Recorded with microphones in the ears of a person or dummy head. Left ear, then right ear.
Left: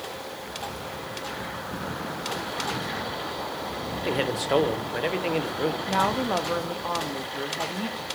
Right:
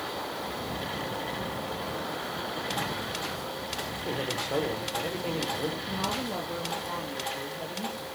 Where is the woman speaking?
45° left (ahead or behind), 0.6 m.